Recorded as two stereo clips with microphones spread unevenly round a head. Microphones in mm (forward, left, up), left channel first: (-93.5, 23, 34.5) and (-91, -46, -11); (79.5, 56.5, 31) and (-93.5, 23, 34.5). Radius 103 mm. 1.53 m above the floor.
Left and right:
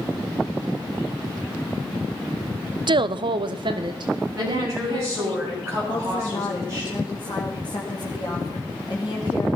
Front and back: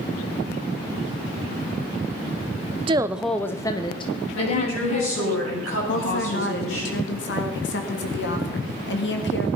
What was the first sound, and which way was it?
A woman speaking, 105° right.